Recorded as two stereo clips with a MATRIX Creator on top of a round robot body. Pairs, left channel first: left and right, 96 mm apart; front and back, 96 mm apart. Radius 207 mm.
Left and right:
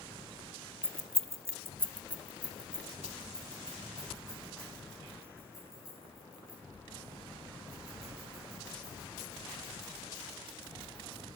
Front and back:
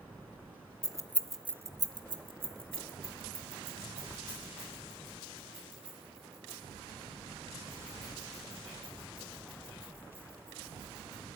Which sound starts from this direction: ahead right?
Keys jangling, at 0.8 s.